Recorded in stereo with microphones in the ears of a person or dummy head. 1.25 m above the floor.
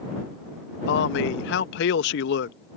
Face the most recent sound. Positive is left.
turn(degrees=70)  # may be behind; listen again after turning